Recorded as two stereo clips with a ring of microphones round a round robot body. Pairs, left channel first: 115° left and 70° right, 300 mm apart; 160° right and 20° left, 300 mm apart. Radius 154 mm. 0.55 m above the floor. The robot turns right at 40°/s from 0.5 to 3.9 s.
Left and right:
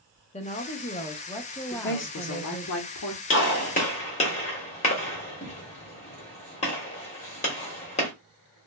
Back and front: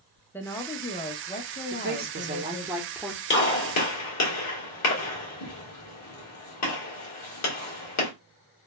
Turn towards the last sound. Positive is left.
turn(degrees=180)